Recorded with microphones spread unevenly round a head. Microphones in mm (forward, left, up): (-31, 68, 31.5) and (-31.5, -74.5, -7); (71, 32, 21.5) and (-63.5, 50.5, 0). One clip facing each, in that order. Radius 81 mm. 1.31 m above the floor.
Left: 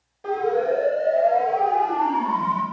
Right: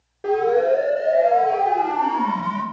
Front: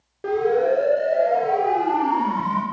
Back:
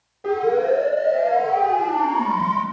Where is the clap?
No clap in this recording.